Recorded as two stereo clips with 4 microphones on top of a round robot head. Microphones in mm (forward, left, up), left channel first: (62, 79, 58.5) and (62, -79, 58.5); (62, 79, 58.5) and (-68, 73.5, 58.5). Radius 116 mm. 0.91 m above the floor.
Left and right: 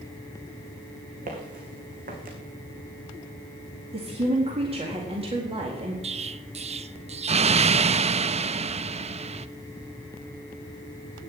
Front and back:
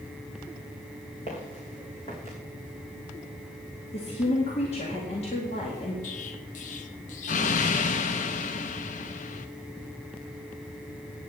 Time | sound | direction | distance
1.3 | footsteps | 55° right | 3.5 m
3.9 | a woman speaking | 40° right | 1.9 m
6.0 | an explosion | 35° right | 0.5 m